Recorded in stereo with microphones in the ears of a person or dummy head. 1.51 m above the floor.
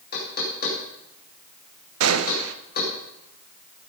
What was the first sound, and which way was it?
Knocking, 55° left (ahead or behind).